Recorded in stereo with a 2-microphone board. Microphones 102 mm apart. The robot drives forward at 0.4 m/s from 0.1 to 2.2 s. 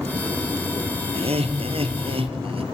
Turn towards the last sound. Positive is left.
turn(degrees=-70)  # may be behind; listen again after turning